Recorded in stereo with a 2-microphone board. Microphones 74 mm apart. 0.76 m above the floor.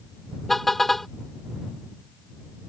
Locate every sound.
0.5 s a car horn: centre (ahead or behind)